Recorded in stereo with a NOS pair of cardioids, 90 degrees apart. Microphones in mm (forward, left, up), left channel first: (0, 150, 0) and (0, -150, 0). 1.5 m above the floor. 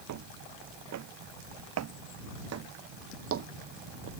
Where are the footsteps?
70° right; by 4.1 s 50° right.